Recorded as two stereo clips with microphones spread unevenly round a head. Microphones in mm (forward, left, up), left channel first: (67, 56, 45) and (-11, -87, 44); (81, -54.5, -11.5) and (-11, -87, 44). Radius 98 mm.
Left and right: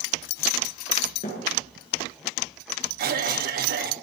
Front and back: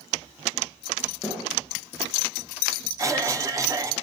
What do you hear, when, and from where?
1.2 s a thud: 110° left, 7.5 m
3.0 s a cough: 95° right, 2.5 m